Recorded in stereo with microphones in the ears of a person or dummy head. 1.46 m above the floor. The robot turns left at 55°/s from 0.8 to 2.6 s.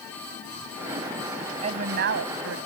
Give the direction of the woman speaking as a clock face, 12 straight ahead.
1 o'clock.